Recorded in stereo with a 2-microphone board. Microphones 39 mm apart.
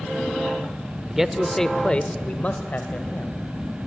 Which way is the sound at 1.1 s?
10° right (ahead or behind).